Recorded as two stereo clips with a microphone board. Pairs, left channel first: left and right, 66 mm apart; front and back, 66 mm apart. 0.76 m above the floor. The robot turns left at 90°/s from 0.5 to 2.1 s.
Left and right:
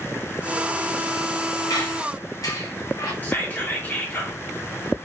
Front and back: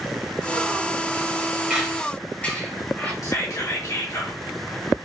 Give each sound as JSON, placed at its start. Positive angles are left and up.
{"t": 1.7, "sound": "a squeak", "azimuth_deg": 105, "distance_m": 2.0}
{"t": 3.2, "sound": "whispering", "azimuth_deg": 30, "distance_m": 2.0}